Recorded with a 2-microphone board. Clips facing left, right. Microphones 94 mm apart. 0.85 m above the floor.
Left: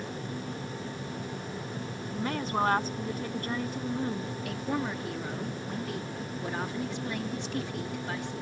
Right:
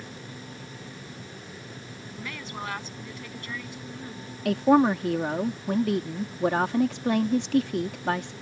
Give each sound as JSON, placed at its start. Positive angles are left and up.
{"t": 2.1, "sound": "a woman speaking", "side_deg": 40}
{"t": 4.5, "sound": "a woman speaking", "side_deg": -65}